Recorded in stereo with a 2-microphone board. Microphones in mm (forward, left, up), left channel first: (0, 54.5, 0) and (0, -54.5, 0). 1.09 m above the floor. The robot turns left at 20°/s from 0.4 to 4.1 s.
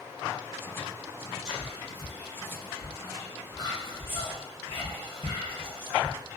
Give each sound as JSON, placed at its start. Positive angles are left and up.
{"t": 1.4, "sound": "whispering", "side_deg": -5, "distance_m": 0.9}